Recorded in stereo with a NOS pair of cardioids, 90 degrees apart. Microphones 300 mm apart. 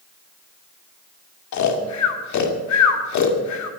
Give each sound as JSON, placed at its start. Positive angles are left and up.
{"t": 1.5, "sound": "snoring", "azimuth_deg": 65, "distance_m": 2.0}